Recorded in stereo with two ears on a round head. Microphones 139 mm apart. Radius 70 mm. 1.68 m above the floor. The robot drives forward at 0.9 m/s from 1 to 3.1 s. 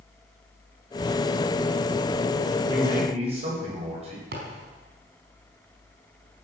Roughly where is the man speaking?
Right.